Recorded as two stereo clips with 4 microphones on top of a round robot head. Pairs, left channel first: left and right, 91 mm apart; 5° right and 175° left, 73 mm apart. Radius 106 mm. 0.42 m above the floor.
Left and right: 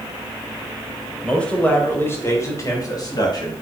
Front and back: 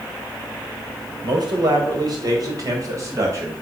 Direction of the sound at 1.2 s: 170° left.